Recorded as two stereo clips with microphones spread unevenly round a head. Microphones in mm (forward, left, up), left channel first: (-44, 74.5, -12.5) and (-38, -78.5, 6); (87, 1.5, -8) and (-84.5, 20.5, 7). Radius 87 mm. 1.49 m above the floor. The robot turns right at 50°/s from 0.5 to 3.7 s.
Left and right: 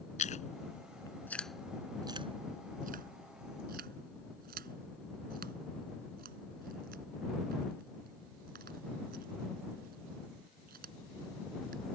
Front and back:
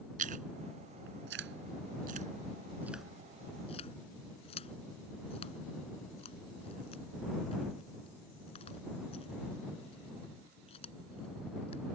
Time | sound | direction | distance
0.2 | chewing | 135° left | ?